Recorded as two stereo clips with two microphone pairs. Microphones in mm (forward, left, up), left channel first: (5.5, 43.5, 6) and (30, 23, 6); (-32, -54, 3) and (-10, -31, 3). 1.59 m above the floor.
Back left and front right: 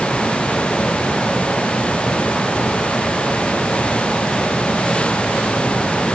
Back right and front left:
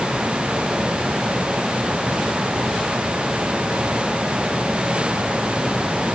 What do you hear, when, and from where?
Only background noise.